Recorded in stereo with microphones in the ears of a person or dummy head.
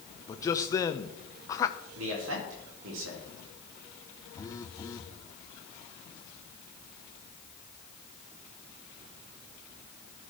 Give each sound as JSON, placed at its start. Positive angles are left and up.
{"t": 0.3, "sound": "a man speaking", "side_deg": 20, "distance_m": 0.9}
{"t": 1.9, "sound": "a man speaking", "side_deg": -90, "distance_m": 5.0}
{"t": 4.3, "sound": "a phone buzzing", "side_deg": 20, "distance_m": 1.1}